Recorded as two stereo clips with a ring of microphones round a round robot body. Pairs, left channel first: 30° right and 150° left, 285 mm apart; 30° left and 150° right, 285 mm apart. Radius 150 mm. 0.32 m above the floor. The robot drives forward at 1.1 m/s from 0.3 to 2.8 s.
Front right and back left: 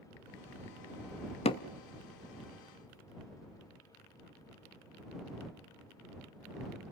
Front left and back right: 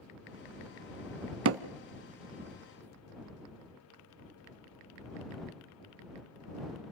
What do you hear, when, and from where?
1.4 s hammering: 100° right, 0.8 m; by 1.6 s 110° right, 0.8 m